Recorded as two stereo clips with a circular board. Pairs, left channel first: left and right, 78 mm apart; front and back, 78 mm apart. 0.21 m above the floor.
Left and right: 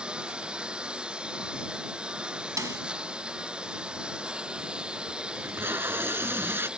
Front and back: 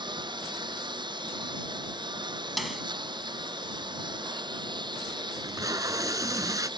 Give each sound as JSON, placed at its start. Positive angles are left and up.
{"t": 0.0, "sound": "a lawn mower", "azimuth_deg": -170}
{"t": 2.6, "sound": "a snare drum", "azimuth_deg": -90}
{"t": 5.3, "sound": "tape being pulled", "azimuth_deg": -145}